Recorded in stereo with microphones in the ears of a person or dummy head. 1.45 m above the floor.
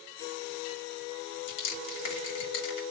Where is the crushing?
65° left (ahead or behind), 2.5 m.